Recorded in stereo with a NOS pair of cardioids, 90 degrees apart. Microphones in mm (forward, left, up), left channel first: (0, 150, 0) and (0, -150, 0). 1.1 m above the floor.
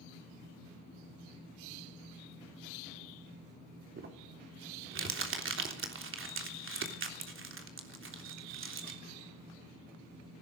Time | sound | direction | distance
4.0 | crumpling | 40° right | 3.5 m